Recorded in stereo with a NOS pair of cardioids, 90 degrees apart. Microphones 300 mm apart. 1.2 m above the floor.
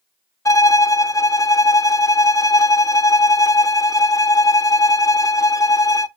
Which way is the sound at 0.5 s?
10° left.